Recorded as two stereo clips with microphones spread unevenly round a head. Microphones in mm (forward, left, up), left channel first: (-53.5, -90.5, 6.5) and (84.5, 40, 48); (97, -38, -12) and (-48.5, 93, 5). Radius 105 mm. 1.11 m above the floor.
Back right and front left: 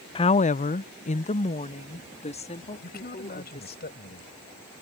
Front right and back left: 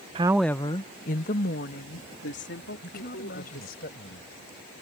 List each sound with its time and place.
0.1 s a woman speaking: 165° right; by 3.8 s 80° right
2.8 s a man speaking: 95° right